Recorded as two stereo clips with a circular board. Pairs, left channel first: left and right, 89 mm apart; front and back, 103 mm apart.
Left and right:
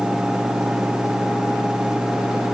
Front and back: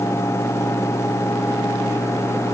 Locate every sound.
Only background noise.